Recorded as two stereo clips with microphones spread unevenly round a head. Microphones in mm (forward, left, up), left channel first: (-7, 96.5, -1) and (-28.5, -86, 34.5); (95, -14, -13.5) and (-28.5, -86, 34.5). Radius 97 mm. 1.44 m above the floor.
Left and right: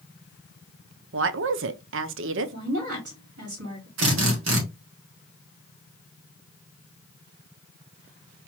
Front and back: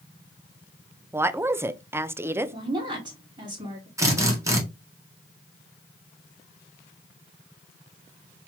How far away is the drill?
About 2.0 m.